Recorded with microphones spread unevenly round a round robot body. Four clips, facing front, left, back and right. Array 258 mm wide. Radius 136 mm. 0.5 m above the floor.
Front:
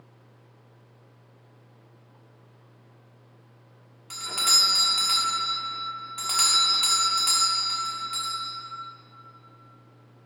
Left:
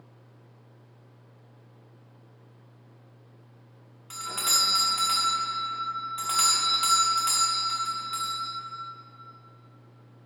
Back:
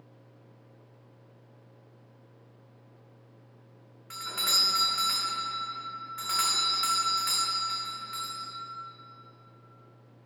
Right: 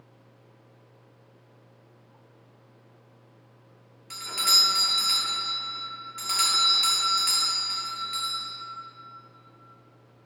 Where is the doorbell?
25° left, 1.5 m.